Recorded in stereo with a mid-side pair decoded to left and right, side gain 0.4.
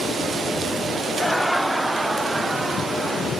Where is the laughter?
10° left; by 3.3 s 25° right.